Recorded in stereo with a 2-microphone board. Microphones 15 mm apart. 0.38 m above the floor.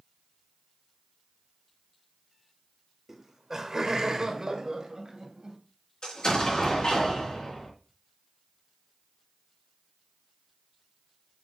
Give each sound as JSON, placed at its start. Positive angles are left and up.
{"t": 3.1, "sound": "laughter", "side_deg": -20, "distance_m": 1.4}
{"t": 6.0, "sound": "an explosion", "side_deg": 55, "distance_m": 3.5}